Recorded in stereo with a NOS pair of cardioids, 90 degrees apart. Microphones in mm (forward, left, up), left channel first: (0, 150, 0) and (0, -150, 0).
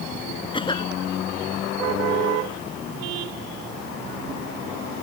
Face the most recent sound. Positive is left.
turn(degrees=15)